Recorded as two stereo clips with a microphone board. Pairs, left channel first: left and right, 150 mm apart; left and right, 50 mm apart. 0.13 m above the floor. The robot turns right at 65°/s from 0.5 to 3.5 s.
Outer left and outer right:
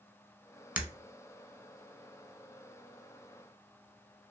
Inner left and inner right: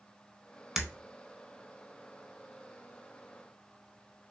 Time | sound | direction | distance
0.8 | breaking glass | 10° right (ahead or behind) | 1.1 m